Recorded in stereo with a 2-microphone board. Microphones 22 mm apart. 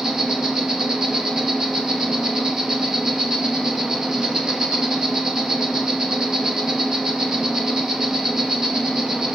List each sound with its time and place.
0.0 s an insect: 30° right (ahead or behind), 2.5 m